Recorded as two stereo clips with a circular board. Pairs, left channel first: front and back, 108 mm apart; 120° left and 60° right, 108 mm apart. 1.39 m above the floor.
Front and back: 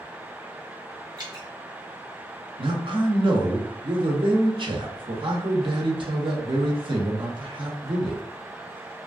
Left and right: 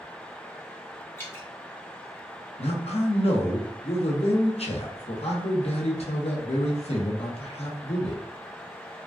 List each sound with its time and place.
1.2 s dripping: straight behind, 0.9 m
2.6 s a man speaking: 140° left, 0.7 m